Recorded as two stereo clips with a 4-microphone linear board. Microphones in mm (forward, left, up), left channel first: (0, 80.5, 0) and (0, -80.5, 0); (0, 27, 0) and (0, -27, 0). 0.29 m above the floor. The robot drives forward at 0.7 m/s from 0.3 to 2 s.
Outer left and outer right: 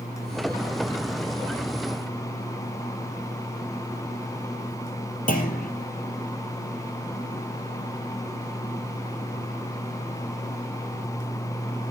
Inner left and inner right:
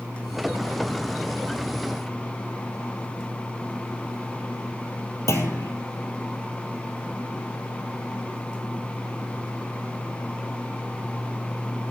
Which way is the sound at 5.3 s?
60° left (ahead or behind).